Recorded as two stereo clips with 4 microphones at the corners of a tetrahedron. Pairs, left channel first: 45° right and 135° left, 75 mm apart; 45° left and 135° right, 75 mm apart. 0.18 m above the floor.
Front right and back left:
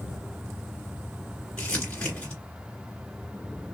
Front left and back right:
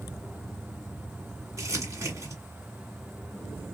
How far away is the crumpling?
About 2 m.